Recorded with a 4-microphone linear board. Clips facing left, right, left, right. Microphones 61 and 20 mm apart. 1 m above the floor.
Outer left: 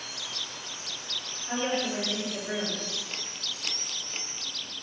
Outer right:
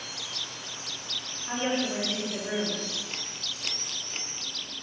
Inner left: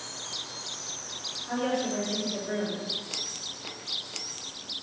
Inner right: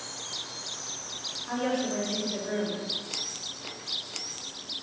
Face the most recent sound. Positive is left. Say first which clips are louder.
# outer right 1 dB, even
turn(degrees=-20)  # may be behind; listen again after turning